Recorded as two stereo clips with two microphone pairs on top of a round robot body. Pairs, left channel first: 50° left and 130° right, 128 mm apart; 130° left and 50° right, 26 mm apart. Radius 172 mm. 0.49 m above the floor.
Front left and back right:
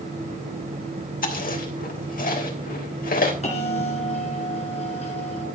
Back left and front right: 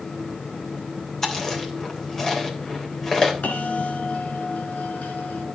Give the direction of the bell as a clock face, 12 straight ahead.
9 o'clock.